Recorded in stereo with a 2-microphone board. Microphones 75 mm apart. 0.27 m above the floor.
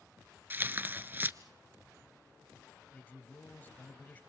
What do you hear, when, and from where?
0.5 s tearing paper: 30° right (ahead or behind), 0.6 m
2.9 s a man speaking: 25° left (ahead or behind), 1.5 m